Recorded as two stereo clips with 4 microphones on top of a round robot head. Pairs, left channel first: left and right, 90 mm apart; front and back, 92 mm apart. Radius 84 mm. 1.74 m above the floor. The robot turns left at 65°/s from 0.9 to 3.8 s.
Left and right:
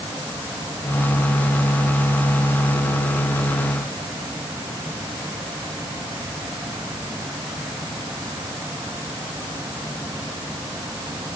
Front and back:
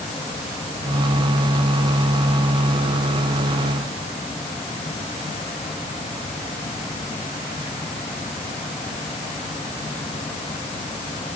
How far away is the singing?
I don't hear singing.